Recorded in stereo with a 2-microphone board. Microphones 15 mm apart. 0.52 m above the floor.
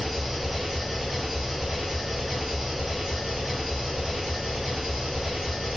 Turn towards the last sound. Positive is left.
turn(degrees=-10)  # may be behind; listen again after turning